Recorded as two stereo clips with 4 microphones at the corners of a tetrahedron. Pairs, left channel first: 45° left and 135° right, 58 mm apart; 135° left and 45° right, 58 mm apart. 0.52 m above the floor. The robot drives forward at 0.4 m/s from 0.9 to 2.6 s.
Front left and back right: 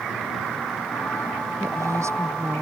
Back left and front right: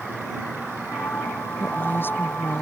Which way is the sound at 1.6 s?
170° right.